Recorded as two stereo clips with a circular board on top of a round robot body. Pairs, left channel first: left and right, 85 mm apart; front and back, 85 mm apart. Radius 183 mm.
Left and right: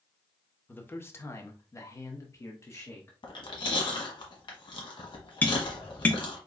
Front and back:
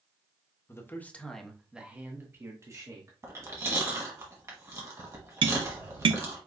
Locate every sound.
0.7 s a man speaking: 35° left, 1.2 m; by 3.1 s 140° left, 1.7 m
3.2 s chewing: 120° left, 1.2 m
5.4 s tapping: 160° left, 0.5 m